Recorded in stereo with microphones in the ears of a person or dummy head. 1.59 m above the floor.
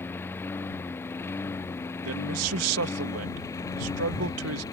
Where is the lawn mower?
15° left (ahead or behind); by 4.7 s 20° left (ahead or behind).